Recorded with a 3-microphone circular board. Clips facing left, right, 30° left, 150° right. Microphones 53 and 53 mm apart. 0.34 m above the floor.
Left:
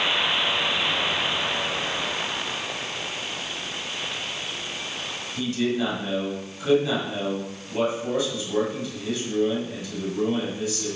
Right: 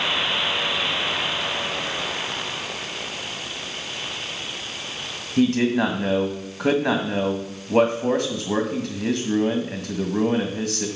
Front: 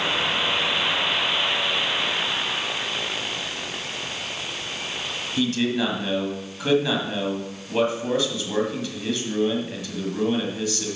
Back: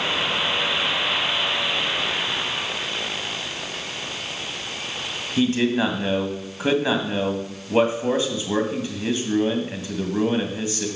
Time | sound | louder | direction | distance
5.4 | a man speaking | right 6 dB, back 3 dB | 90° right | 1.7 m